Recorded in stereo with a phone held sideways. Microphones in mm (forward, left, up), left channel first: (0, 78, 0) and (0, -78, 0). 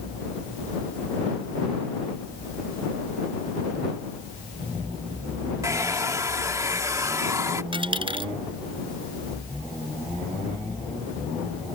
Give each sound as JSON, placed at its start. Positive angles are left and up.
{"t": 5.6, "sound": "a hair dryer", "side_deg": -20}
{"t": 7.7, "sound": "a dropped coin", "side_deg": -35}